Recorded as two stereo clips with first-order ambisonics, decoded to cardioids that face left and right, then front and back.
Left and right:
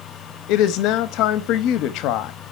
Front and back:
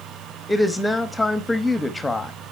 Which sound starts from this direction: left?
A woman speaking, at 0.5 s.